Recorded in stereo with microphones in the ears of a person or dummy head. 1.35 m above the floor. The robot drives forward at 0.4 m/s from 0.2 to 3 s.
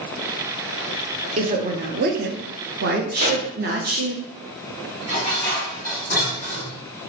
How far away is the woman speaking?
About 0.7 m.